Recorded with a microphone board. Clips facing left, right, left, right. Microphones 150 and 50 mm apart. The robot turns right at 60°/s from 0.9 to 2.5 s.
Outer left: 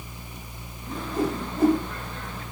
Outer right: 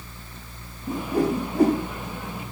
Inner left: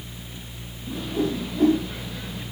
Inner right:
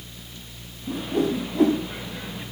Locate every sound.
0.9 s a whoosh: 55° right (ahead or behind), 7 m; by 1.8 s 75° right (ahead or behind), 7 m